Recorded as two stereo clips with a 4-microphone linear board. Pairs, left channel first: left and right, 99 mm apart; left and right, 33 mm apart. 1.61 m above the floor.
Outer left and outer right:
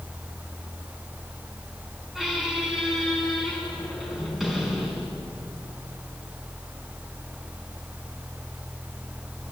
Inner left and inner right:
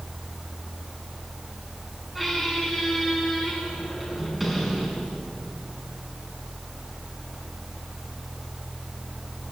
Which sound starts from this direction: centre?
A squeak, at 2.1 s.